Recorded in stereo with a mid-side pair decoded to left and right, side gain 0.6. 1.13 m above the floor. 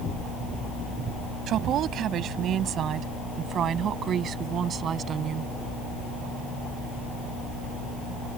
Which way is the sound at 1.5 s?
55° right.